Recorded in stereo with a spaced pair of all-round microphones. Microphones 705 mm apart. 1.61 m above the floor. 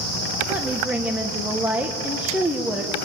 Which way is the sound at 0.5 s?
Centre (ahead or behind).